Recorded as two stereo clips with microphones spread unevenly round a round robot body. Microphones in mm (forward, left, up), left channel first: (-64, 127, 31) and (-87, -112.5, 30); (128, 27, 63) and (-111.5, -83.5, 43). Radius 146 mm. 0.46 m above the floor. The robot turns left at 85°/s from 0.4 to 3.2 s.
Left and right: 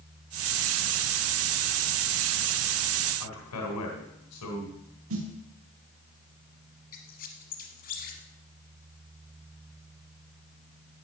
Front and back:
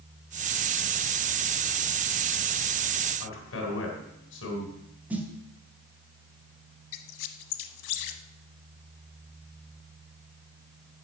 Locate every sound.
3.2 s a man speaking: 70° left, 3 m
5.1 s a snare drum: 75° right, 2.0 m
6.9 s a squeak: 25° left, 0.9 m